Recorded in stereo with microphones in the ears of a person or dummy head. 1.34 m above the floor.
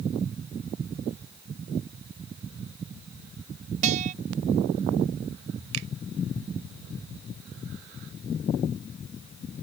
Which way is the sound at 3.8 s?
40° right (ahead or behind).